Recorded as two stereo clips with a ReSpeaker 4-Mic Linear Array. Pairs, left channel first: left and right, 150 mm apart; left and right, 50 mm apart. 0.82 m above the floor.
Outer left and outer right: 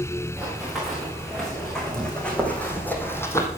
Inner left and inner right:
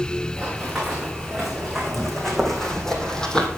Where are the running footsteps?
Centre (ahead or behind), 5.5 m; by 3.5 s 20° left (ahead or behind), 2 m.